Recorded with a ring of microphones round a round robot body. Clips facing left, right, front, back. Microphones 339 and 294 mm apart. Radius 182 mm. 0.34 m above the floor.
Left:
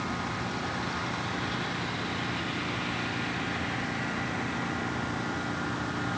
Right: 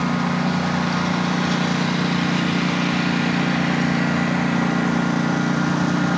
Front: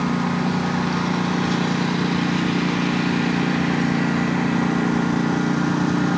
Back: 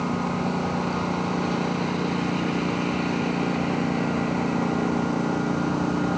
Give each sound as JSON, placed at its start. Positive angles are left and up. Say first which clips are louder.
{"t": 0.0, "sound": "a lawn mower", "louder": "right 14 dB, front 4 dB", "azimuth_deg": -70}